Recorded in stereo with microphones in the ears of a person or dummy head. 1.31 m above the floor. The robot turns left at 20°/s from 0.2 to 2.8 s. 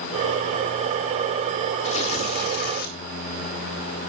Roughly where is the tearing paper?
Left.